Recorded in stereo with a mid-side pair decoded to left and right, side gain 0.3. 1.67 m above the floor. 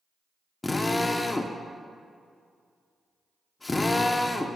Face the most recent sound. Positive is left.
turn(degrees=30)